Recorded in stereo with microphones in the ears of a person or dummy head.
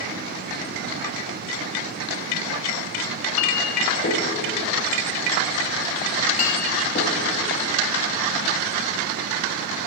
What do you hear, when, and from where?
3.1 s a clink: 40° left (ahead or behind), 1.0 m